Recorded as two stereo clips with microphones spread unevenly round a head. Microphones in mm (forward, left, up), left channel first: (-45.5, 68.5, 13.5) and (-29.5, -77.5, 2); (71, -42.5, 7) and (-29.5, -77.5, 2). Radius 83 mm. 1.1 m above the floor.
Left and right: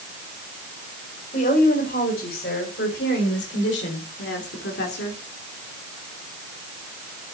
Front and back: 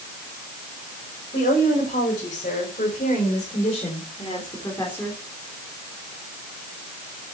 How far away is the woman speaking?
About 5.5 m.